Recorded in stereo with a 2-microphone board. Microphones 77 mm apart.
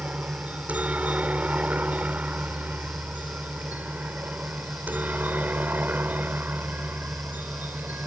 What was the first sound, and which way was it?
A helicopter, 20° right (ahead or behind).